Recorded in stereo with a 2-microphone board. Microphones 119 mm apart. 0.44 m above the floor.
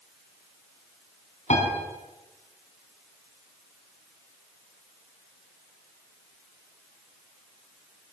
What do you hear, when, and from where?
1.5 s a piano: 75° left (ahead or behind), 4.5 m